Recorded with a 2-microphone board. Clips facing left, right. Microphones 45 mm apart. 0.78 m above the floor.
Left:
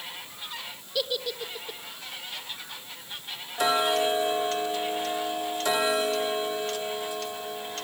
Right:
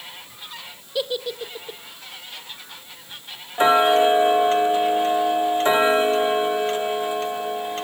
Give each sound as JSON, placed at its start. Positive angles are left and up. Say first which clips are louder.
{"t": 0.9, "sound": "a giggle", "louder": "right 4 dB", "side_deg": -15, "distance_m": 1.1}
{"t": 3.6, "sound": "ticking", "louder": "right 8 dB", "side_deg": -30, "distance_m": 0.7}